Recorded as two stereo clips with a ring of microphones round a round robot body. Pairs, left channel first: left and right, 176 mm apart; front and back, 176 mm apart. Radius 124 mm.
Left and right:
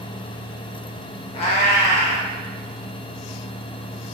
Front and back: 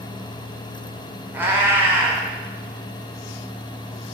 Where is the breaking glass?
No breaking glass in this recording.